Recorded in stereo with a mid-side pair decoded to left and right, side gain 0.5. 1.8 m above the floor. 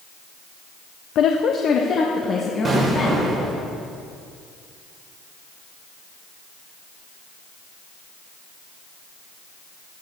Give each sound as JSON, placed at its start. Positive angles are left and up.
{"t": 1.1, "sound": "a woman speaking", "azimuth_deg": 65, "distance_m": 0.7}
{"t": 2.6, "sound": "an explosion", "azimuth_deg": -30, "distance_m": 4.0}